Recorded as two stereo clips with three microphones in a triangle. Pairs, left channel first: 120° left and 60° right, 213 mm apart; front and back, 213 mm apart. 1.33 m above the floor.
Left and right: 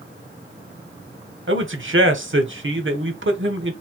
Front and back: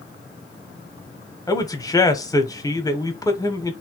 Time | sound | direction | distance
1.5 | a man speaking | 75° right | 1.1 m